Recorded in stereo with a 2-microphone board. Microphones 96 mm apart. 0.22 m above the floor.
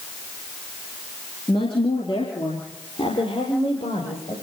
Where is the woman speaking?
60° left (ahead or behind), 4.5 m; by 4.3 s 80° left, 6.5 m.